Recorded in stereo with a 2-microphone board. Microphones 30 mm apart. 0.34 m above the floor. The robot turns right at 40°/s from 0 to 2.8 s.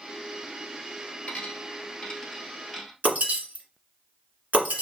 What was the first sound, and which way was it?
A dropped coin, 50° left (ahead or behind).